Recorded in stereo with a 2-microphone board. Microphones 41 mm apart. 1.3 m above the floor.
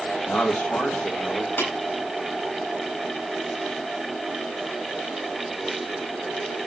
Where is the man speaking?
55° left (ahead or behind), 2 m.